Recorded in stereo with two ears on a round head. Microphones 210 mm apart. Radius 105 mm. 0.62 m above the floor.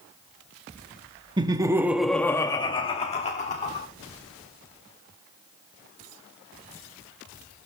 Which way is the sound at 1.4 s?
20° right (ahead or behind).